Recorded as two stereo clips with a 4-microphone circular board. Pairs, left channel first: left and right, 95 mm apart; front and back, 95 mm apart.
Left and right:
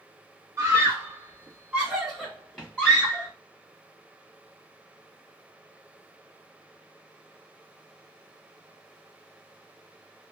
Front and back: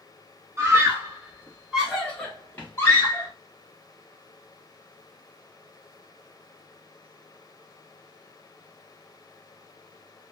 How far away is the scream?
About 1.2 m.